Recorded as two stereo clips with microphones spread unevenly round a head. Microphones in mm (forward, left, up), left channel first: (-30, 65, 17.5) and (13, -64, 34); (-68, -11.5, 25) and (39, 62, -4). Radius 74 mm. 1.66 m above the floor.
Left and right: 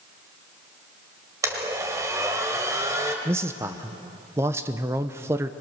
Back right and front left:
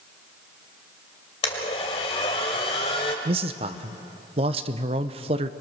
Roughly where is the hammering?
I don't hear hammering.